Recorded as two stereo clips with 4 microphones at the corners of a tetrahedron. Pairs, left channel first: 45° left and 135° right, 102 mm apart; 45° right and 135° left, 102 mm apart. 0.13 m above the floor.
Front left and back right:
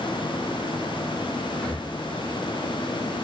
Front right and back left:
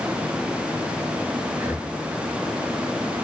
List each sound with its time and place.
1.5 s breathing: 110° left, 1.3 m